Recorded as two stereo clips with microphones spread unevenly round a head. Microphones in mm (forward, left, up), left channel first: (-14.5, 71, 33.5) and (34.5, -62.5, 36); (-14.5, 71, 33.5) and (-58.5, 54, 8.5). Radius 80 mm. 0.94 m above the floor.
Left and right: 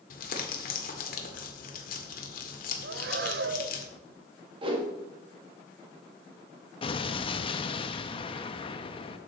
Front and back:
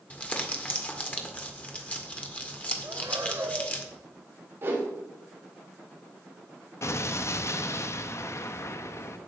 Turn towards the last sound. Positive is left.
turn(degrees=55)